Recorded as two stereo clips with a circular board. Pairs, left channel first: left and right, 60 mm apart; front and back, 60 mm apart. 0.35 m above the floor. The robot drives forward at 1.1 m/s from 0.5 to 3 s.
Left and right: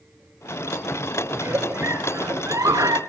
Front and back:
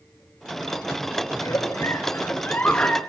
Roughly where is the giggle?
Ahead right.